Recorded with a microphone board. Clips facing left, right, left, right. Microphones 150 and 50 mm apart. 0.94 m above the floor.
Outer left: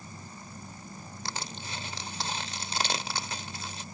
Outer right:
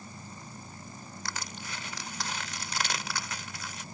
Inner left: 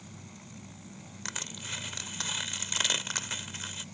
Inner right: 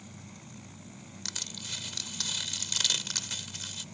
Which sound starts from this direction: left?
Crushing, at 1.2 s.